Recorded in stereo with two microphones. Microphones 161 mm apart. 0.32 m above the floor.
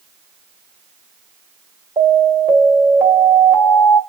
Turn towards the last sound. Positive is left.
turn(degrees=-10)  # may be behind; listen again after turning